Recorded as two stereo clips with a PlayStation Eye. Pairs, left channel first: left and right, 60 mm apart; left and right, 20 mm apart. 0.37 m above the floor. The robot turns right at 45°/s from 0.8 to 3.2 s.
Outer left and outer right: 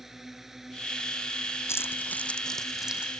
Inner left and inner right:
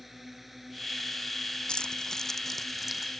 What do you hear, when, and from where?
0.0 s a drone: 5° right; by 3.2 s 100° left
1.7 s keys jangling: 45° left (ahead or behind); by 3.1 s 15° right (ahead or behind)